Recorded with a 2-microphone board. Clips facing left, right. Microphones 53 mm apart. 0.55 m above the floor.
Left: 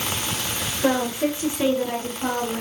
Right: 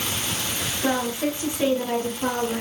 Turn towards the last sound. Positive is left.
turn(degrees=-15)  # may be behind; listen again after turning